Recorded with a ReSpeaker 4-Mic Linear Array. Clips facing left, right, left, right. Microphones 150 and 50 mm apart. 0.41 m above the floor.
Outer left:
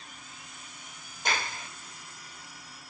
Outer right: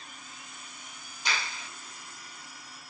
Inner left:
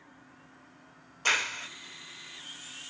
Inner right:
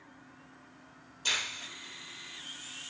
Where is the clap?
45° left (ahead or behind), 0.7 m.